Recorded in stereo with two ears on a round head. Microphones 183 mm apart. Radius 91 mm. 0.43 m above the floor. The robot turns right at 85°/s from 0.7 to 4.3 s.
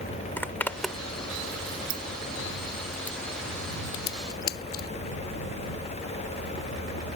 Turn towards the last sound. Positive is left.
turn(degrees=50)  # may be behind; listen again after turning